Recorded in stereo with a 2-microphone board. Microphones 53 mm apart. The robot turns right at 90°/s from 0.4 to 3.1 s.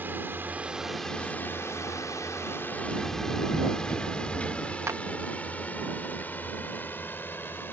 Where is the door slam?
50° left (ahead or behind); by 4.8 s 25° left (ahead or behind).